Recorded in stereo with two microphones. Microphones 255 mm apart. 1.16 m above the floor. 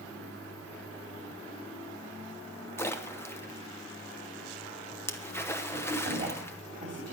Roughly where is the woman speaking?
Right.